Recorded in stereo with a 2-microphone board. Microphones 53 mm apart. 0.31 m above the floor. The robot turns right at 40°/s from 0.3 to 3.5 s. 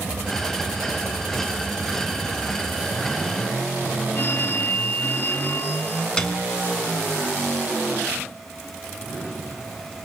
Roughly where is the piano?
Centre.